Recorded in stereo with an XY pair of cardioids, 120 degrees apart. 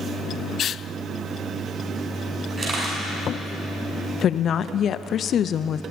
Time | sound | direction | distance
2.6 | a camera shutter | 35° right | 7.5 m
4.2 | a woman speaking | 50° left | 0.5 m